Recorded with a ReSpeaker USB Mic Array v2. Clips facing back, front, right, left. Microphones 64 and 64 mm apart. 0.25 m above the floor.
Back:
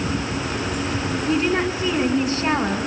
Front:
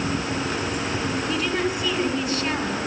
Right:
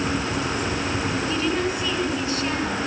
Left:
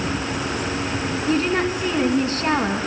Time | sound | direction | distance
1.3 | a woman speaking | 130° left | 3 m